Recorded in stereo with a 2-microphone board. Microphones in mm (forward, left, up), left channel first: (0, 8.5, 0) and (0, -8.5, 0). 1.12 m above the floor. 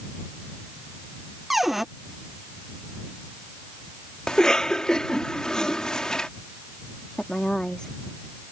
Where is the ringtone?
No ringtone in this recording.